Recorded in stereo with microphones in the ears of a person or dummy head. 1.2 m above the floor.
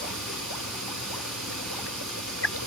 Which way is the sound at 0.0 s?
Centre (ahead or behind).